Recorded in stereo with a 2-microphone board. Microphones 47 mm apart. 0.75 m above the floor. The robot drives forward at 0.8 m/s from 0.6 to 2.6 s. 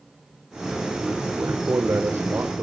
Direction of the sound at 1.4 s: 75° right (ahead or behind).